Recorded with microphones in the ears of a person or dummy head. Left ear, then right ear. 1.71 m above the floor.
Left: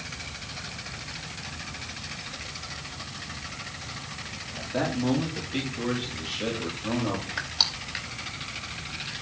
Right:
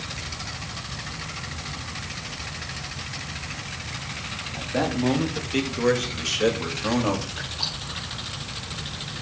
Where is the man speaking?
Centre (ahead or behind), 2 m; by 7.3 s 75° right (ahead or behind), 3 m.